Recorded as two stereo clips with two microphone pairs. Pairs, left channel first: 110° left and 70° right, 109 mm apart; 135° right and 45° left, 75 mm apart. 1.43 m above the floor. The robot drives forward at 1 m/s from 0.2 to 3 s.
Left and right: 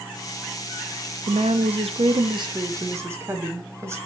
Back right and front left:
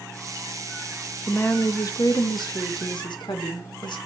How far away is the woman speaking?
About 1.4 m.